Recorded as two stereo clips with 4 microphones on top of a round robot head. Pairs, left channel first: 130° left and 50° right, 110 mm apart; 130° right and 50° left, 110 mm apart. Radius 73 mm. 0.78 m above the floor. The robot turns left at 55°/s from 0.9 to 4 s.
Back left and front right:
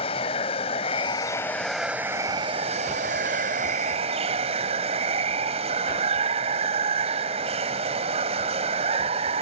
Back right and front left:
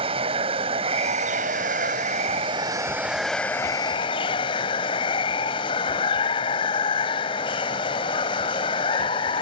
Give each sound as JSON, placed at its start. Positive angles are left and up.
{"t": 0.0, "sound": "running water", "azimuth_deg": 90}